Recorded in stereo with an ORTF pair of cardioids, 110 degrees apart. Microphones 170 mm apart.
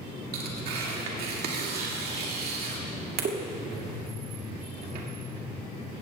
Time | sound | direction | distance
0.3 | tearing paper | 65° right | 2 m